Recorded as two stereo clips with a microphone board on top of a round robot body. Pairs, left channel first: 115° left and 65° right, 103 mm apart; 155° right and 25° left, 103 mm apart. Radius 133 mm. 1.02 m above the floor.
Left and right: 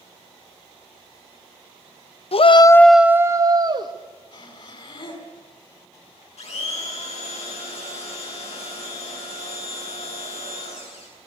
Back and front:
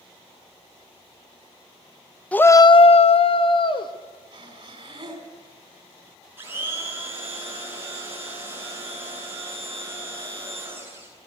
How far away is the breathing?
About 5.5 m.